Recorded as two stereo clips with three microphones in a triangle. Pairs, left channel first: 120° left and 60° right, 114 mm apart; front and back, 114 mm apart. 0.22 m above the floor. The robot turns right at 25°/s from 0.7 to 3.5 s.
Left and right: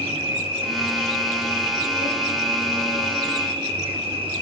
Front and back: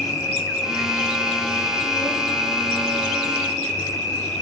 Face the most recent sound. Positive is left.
turn(degrees=-25)